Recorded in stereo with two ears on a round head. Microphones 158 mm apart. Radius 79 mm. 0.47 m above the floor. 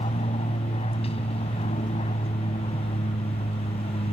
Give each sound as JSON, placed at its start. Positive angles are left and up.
{"t": 0.0, "sound": "an aircraft", "side_deg": 35}